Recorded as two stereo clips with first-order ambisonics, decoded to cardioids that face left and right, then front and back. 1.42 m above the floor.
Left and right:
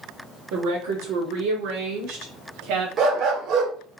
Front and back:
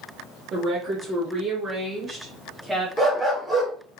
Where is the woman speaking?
120° right, 1.2 m; by 2.9 s 95° right, 2 m.